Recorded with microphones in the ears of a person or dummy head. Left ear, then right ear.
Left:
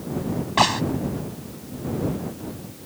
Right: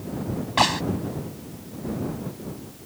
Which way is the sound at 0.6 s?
5° right (ahead or behind).